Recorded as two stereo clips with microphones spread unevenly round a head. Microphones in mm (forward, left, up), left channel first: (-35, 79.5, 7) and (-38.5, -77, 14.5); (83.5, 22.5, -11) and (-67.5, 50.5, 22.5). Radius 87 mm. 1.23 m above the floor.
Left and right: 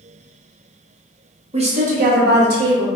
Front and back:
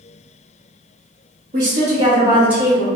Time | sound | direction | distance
1.5 | a woman speaking | 145° right | 0.9 m